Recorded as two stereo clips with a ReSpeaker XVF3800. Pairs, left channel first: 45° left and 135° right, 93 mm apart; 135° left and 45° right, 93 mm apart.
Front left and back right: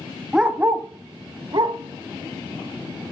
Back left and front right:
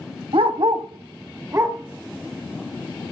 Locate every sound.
0.3 s a dog barking: 50° right, 1.0 m; by 3.0 s 120° right, 3 m